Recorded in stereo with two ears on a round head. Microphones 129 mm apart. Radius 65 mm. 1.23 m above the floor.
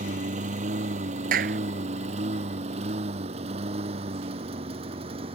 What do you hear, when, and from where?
0.0 s a lawn mower: 55° right (ahead or behind); by 5.4 s 40° right (ahead or behind)
1.3 s a clap: 65° right (ahead or behind)